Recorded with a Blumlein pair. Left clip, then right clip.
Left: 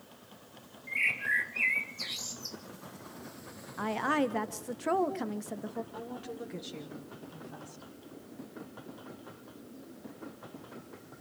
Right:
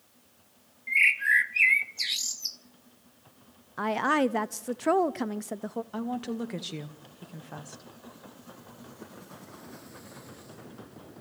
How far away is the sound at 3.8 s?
About 0.8 m.